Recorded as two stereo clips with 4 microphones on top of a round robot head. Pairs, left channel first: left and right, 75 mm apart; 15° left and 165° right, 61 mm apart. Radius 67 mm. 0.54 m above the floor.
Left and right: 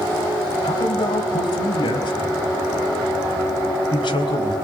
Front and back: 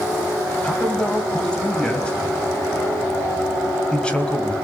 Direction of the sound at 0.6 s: 85° left.